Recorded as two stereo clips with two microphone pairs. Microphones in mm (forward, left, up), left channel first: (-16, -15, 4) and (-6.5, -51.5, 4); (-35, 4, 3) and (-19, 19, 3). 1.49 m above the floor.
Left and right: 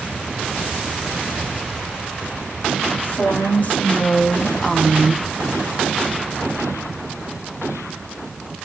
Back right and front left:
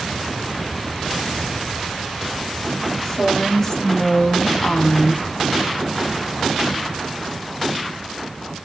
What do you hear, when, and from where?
3.0 s a woman speaking: 140° left, 1.8 m; by 5.2 s 110° right, 0.6 m